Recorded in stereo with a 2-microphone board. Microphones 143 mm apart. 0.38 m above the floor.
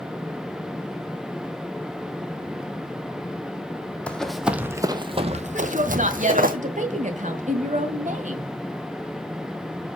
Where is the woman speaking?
60° right (ahead or behind), 1.8 m.